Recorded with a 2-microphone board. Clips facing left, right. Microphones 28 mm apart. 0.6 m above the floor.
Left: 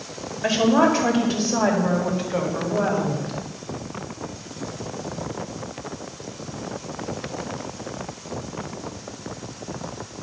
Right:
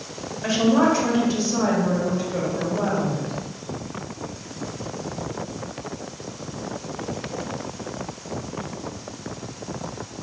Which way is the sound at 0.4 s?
15° left (ahead or behind).